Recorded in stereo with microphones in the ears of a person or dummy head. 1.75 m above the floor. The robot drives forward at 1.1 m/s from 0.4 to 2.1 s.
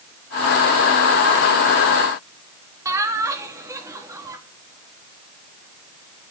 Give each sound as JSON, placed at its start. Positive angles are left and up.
{"t": 2.9, "sound": "laughter", "side_deg": -15, "distance_m": 4.0}